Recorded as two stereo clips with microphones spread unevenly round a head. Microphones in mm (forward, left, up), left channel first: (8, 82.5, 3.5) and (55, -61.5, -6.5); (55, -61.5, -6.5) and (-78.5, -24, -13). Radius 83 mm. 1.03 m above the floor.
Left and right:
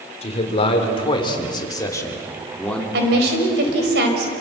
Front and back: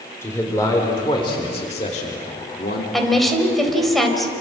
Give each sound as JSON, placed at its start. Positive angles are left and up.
{"t": 0.2, "sound": "a man speaking", "azimuth_deg": 60, "distance_m": 3.5}
{"t": 2.9, "sound": "a woman speaking", "azimuth_deg": -105, "distance_m": 4.5}